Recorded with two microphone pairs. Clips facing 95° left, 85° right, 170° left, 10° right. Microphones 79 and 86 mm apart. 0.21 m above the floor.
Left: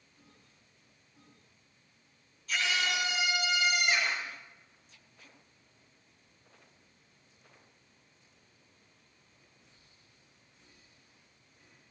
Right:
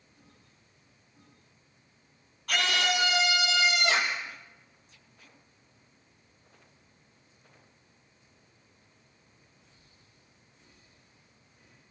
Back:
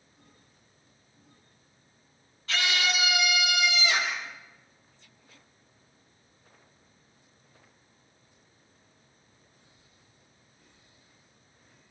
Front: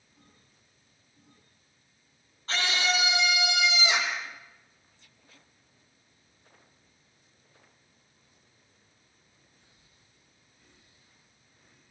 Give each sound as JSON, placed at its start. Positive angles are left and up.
{"t": 2.5, "sound": "a scream", "azimuth_deg": -65, "distance_m": 7.0}